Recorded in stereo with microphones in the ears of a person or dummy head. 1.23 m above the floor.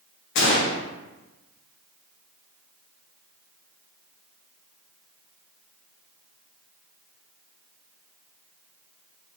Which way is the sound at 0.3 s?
60° left (ahead or behind).